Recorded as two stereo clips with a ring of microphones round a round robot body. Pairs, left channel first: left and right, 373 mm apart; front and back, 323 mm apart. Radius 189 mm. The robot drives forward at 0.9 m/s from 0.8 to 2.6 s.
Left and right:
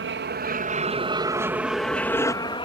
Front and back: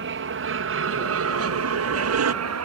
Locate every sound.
0.0 s an aircraft: 140° right; by 2.7 s 165° left